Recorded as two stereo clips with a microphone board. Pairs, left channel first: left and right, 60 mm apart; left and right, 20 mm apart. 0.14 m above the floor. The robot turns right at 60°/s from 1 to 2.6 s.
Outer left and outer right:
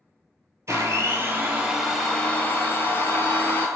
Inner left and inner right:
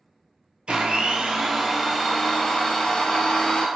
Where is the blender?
55° right, 0.6 m; by 3.7 s 40° left, 0.6 m.